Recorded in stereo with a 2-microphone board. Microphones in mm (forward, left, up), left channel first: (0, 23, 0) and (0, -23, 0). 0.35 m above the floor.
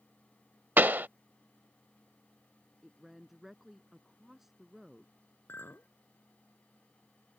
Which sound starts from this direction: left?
A clink, at 5.5 s.